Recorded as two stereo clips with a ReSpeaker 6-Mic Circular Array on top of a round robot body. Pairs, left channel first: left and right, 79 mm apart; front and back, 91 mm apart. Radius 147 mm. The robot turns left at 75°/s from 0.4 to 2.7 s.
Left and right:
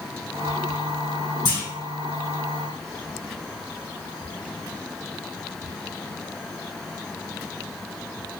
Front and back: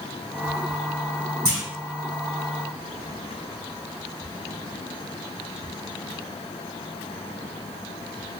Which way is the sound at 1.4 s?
120° left.